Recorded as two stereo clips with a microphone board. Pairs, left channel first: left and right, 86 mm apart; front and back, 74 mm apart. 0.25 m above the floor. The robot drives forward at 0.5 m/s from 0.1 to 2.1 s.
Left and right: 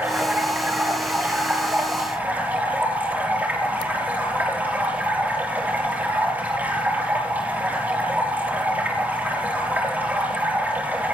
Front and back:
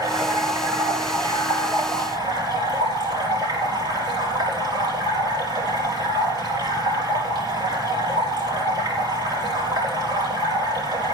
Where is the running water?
155° right, 4 m; by 11.1 s 160° right, 5 m.